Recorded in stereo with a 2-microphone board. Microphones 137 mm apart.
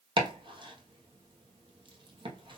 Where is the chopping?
35° right (ahead or behind), 1.2 m.